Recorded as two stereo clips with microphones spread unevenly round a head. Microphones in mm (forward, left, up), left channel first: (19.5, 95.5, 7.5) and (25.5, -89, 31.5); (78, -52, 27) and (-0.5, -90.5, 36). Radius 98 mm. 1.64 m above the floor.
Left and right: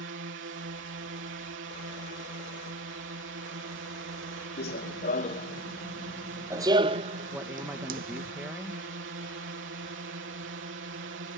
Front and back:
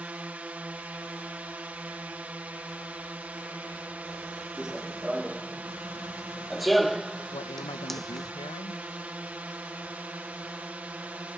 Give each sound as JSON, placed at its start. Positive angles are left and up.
{"t": 0.0, "sound": "a drone", "azimuth_deg": -80}
{"t": 4.6, "sound": "running footsteps", "azimuth_deg": 125}
{"t": 7.3, "sound": "a woman speaking", "azimuth_deg": -10}